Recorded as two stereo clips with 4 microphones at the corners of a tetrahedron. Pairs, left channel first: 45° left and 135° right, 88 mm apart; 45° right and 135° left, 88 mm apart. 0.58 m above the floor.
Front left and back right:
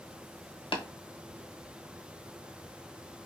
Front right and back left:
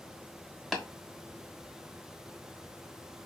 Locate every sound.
0.7 s tapping: 45° left, 0.9 m